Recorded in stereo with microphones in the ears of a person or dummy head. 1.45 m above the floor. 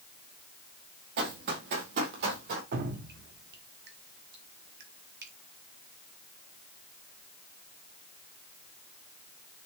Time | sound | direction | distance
1.2 | running footsteps | 60° right (ahead or behind) | 3 m
2.7 | dripping | 60° right (ahead or behind) | 1.1 m